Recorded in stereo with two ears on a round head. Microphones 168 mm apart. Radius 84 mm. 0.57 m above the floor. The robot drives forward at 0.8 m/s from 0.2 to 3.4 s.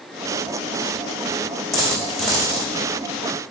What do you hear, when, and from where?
1.7 s a dropped coin: centre (ahead or behind), 4 m